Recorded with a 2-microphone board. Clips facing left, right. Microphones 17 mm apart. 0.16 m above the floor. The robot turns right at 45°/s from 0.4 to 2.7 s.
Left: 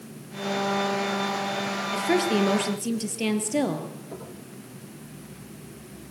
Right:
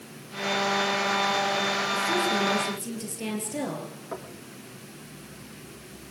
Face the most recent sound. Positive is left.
turn(degrees=-65)  # may be behind; listen again after turning